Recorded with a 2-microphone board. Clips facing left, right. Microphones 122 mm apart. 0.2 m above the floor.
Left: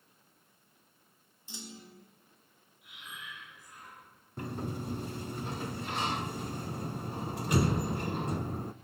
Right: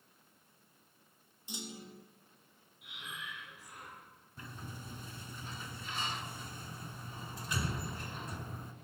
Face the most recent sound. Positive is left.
turn(degrees=60)  # may be behind; listen again after turning